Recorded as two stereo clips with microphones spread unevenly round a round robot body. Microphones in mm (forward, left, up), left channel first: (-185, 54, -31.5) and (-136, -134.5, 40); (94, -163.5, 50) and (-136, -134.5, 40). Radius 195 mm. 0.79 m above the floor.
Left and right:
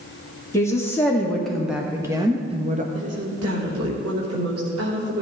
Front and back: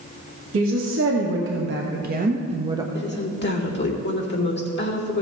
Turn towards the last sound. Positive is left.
turn(degrees=-50)